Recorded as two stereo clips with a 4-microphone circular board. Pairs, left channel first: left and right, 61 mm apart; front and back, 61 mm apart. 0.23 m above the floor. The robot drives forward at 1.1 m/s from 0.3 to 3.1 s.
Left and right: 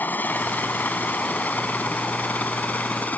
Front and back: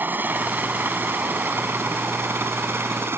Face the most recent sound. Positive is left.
turn(degrees=145)